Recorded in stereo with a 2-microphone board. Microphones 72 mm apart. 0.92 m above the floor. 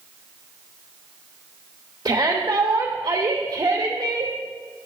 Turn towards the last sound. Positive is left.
turn(degrees=-70)  # may be behind; listen again after turning